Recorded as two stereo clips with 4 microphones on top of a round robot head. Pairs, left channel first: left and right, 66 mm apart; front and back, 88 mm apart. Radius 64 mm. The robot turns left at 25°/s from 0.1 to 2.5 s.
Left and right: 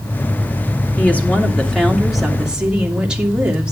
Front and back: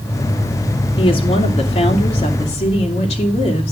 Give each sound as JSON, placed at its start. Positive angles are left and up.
{"t": 1.0, "sound": "a woman speaking", "azimuth_deg": 25, "distance_m": 2.0}